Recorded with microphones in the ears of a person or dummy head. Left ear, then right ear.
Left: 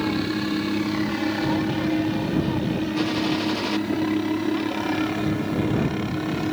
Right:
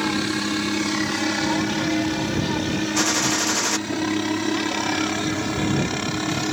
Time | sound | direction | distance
0.0 | a helicopter | 55° right (ahead or behind) | ?
3.0 | a gunshot | 55° right (ahead or behind) | ?